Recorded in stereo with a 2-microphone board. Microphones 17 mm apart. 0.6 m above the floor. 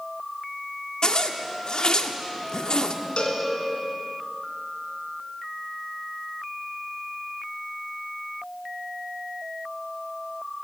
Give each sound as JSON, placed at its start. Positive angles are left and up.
{"t": 1.0, "sound": "a zipper", "side_deg": 50, "distance_m": 1.2}
{"t": 3.2, "sound": "a cowbell", "side_deg": 85, "distance_m": 4.0}